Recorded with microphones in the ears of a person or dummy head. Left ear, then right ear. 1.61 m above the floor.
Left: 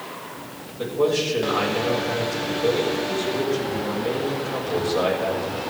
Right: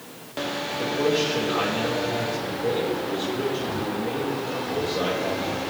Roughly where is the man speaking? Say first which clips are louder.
Left 2 dB; left.